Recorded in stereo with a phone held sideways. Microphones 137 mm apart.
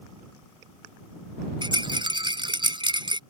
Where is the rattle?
35° right (ahead or behind).